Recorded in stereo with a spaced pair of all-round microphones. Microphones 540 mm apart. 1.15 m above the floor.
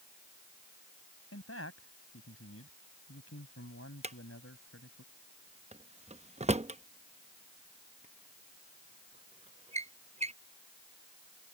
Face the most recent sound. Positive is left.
turn(degrees=-15)  # may be behind; listen again after turning